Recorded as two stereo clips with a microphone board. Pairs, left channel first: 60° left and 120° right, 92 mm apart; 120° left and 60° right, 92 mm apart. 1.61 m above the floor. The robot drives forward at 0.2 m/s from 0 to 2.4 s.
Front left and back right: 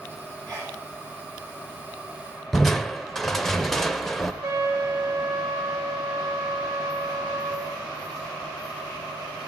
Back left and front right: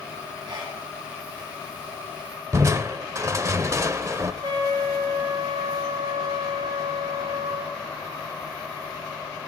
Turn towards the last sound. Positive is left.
turn(degrees=-70)